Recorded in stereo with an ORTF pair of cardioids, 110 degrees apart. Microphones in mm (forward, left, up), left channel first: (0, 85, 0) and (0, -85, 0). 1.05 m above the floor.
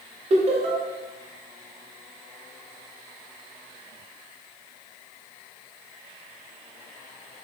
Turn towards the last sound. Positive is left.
turn(degrees=-40)